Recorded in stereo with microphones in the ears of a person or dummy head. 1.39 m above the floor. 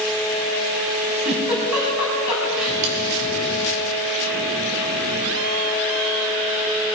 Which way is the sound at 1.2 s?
10° right (ahead or behind).